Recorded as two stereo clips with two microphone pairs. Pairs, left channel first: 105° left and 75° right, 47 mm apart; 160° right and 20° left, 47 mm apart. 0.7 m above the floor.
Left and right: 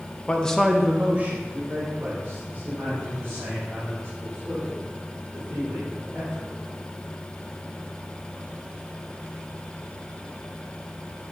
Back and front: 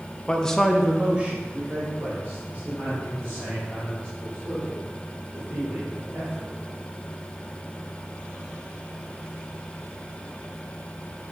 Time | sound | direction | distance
0.3 | a man speaking | 150° left | 0.7 m